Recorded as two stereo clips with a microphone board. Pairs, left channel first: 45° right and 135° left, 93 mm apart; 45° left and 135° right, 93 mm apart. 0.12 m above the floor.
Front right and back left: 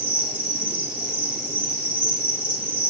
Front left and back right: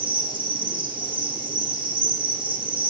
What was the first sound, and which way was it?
An insect, 150° right.